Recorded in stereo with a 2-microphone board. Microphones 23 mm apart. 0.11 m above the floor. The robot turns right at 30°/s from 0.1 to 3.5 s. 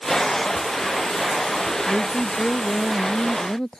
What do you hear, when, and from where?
1.9 s a woman speaking: 95° left; by 3.8 s 145° left